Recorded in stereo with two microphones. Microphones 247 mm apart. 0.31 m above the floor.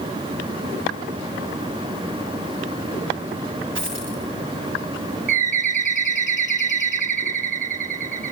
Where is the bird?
35° left (ahead or behind), 1.4 m.